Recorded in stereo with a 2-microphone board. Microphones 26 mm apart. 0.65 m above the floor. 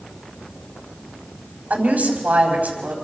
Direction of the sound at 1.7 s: 75° right (ahead or behind).